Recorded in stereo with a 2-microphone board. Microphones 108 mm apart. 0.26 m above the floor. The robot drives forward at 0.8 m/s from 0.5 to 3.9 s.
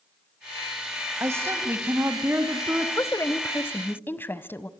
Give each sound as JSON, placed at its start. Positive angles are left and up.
{"t": 1.2, "sound": "a woman speaking", "side_deg": -25, "distance_m": 1.8}
{"t": 3.0, "sound": "a woman speaking", "side_deg": 25, "distance_m": 1.0}